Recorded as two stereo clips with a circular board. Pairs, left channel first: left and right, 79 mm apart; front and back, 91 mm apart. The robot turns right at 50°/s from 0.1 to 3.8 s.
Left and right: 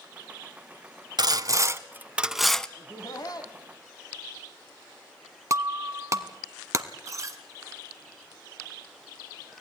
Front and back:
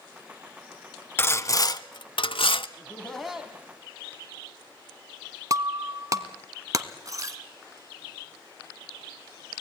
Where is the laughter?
65° left, 1.5 m; by 3.6 s 110° left, 1.5 m.